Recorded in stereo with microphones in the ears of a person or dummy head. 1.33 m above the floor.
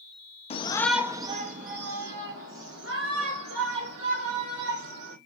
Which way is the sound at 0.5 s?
25° left (ahead or behind).